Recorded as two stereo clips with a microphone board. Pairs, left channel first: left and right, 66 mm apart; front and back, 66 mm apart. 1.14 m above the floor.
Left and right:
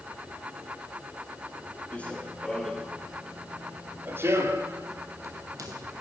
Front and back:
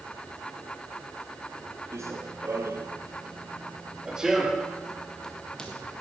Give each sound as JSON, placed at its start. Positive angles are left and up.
{"t": 1.9, "sound": "running footsteps", "azimuth_deg": 155, "distance_m": 1.8}